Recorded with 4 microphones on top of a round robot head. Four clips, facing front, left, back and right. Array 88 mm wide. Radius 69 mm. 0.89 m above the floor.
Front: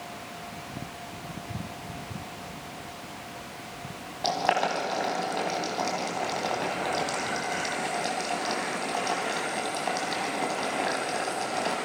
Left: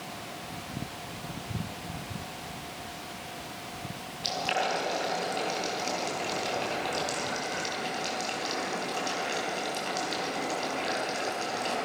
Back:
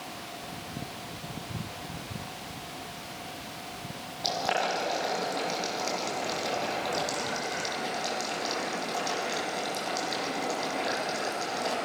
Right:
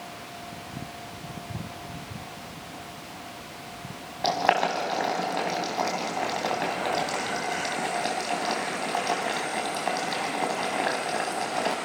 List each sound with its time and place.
4.2 s boiling: 70° right, 3.5 m